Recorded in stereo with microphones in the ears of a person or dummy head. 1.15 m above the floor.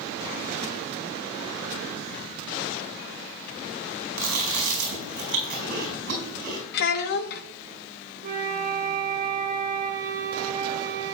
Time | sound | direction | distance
4.2 | chewing | 60° right (ahead or behind) | 5 m
6.7 | a child speaking | 60° left (ahead or behind) | 0.8 m
8.2 | a flute | 50° right (ahead or behind) | 1.3 m